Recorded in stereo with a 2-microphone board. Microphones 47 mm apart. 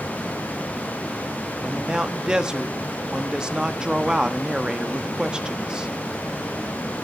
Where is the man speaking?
15° right (ahead or behind), 0.9 m.